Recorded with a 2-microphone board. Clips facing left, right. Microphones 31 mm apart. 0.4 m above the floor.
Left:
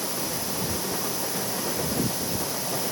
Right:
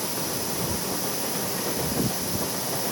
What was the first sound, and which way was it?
Only background noise.